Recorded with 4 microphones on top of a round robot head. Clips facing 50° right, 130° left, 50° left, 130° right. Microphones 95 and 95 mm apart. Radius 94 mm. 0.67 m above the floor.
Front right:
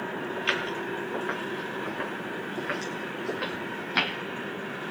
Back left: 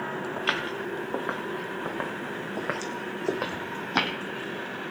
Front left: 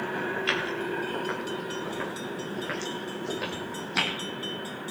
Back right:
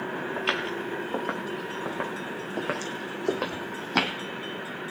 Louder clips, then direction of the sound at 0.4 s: Even, even; 175° right.